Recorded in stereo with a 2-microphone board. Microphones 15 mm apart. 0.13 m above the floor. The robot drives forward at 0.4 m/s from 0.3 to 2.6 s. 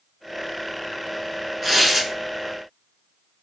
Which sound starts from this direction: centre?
Tearing paper, at 1.6 s.